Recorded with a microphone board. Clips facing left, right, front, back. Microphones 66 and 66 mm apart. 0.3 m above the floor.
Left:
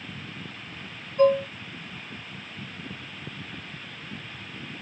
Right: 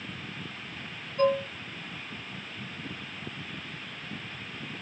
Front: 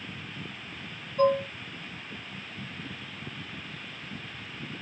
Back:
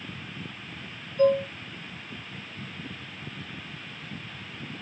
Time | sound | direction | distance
1.2 | dishes clattering | 10° left | 1.1 m